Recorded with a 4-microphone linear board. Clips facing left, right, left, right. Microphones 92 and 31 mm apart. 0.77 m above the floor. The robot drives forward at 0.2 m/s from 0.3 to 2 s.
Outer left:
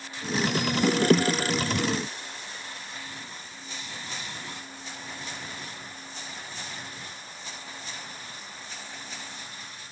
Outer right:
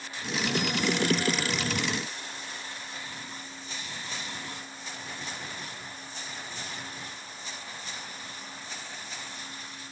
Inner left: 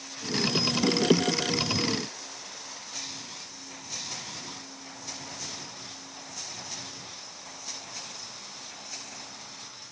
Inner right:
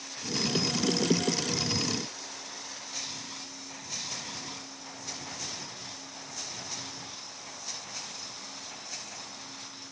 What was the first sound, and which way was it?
Only background noise.